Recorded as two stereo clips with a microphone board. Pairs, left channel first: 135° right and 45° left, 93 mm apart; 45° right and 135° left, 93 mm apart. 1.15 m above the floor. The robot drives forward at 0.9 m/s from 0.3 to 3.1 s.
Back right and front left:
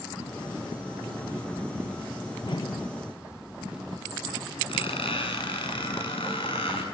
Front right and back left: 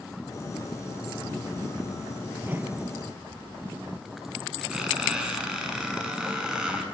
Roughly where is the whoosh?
Behind right.